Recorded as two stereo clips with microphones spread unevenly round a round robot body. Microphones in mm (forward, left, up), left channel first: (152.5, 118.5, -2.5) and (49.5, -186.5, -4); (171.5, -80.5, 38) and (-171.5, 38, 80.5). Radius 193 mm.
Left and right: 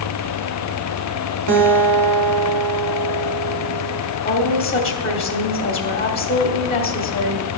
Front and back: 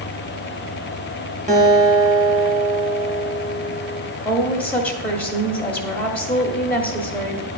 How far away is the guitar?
About 1.9 m.